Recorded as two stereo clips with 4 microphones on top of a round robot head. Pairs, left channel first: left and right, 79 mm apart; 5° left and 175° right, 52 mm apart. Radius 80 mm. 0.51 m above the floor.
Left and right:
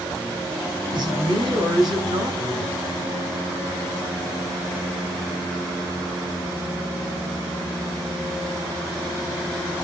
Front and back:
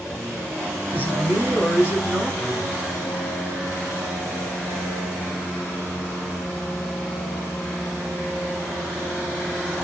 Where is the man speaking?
115° right, 3.5 m.